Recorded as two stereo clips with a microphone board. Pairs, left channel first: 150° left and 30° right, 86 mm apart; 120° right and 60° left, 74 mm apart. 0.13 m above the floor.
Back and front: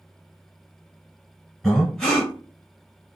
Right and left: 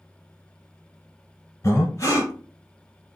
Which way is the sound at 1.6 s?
130° right.